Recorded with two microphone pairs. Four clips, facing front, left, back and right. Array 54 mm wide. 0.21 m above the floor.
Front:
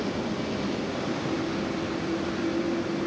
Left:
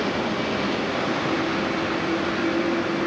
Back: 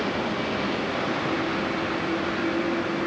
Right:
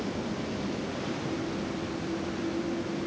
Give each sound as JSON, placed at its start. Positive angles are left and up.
{"t": 0.0, "sound": "a vehicle", "azimuth_deg": 125}